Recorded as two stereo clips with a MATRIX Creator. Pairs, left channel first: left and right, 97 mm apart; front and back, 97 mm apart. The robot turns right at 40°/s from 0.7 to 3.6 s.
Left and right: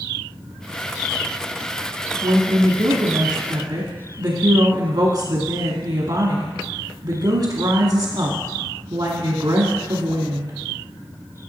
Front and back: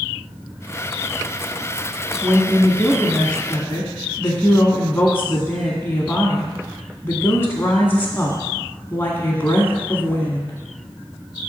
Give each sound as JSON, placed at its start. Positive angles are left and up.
{"t": 2.2, "sound": "a woman speaking", "azimuth_deg": -120, "distance_m": 1.7}